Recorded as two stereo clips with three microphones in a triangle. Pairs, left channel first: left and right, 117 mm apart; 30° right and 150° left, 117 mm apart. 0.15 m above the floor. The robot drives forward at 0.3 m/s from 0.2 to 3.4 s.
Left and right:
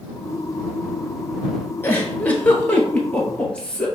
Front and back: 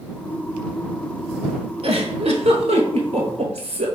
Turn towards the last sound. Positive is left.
turn(degrees=170)